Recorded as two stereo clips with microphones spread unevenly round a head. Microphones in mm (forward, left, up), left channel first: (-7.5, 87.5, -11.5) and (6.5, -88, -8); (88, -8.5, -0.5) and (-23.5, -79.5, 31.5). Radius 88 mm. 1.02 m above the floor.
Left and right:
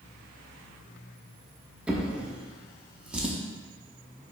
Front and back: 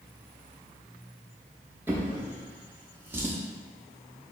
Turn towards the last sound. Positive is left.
turn(degrees=-160)